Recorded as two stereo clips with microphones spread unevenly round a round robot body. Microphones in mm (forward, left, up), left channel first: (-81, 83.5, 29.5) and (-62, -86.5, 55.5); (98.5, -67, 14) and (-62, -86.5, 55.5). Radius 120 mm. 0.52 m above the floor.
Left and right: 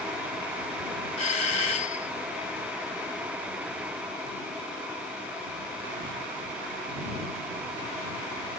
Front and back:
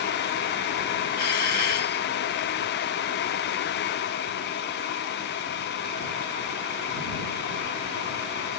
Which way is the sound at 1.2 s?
35° left.